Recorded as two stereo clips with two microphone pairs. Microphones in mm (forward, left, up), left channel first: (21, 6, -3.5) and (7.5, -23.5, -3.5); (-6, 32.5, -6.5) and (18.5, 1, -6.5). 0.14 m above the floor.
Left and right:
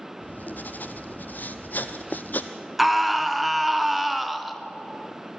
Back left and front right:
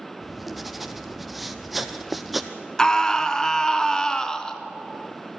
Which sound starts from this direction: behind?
A scream, at 2.8 s.